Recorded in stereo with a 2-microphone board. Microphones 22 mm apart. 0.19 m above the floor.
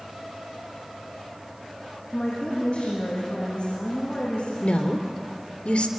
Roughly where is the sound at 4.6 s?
Left.